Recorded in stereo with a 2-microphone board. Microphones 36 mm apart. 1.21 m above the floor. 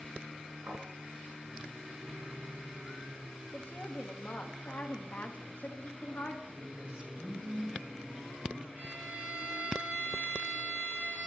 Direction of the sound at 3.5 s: 45° left (ahead or behind).